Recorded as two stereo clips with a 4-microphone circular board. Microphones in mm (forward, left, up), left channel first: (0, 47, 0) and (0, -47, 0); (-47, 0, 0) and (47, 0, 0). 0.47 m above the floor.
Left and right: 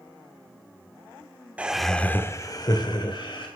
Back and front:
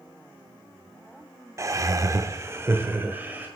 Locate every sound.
1.6 s laughter: 25° right, 0.8 m; by 3.5 s 70° left, 1.7 m